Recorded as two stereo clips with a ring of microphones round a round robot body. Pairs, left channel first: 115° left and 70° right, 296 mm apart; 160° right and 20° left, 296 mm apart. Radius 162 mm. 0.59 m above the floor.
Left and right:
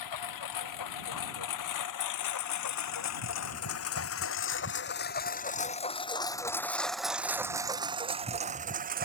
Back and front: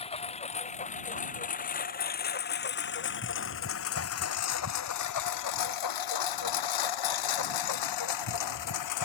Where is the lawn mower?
130° left; by 9.0 s 130° right.